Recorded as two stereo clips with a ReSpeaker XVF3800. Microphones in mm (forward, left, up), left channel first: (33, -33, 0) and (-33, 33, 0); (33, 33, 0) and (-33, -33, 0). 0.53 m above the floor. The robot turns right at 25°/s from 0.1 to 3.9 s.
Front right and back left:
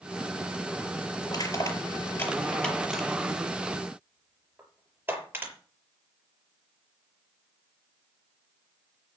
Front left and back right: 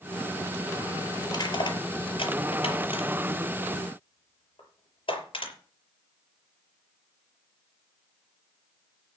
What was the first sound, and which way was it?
Crushing, straight ahead.